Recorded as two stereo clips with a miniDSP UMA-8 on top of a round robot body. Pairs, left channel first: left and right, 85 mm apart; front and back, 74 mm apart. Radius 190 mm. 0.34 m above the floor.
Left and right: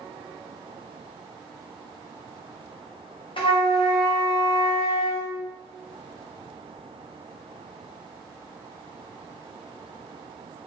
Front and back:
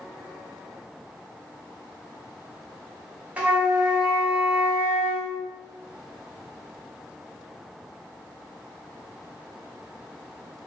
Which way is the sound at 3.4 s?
110° left.